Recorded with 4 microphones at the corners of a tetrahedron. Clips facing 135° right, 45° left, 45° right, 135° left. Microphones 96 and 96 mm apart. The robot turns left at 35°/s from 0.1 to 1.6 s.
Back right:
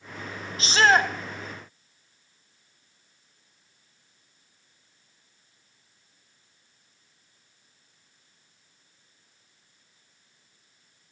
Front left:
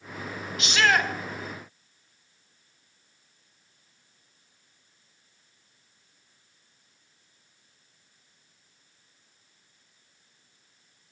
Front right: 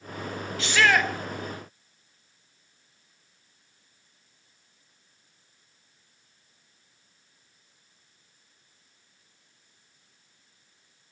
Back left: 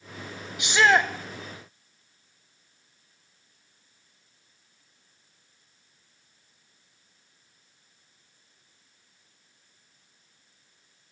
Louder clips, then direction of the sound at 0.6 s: Back right 3 dB, back left 2 dB; 165° right.